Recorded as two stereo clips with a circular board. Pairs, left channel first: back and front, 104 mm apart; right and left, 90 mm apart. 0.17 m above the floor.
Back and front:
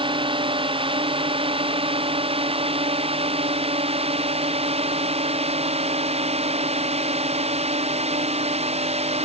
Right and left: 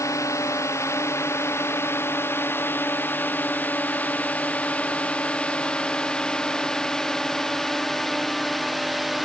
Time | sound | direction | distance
0.0 | a drone | 35° right | ?